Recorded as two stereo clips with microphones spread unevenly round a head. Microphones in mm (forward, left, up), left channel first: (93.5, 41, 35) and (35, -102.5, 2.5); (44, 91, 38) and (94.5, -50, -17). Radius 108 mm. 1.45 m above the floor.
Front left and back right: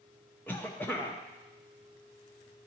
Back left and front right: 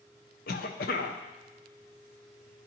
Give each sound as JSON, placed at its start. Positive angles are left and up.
{"t": 0.5, "sound": "a cough", "azimuth_deg": 145, "distance_m": 0.6}